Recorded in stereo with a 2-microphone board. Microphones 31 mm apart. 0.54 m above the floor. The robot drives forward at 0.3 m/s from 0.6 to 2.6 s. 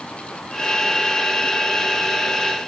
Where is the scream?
No scream in this recording.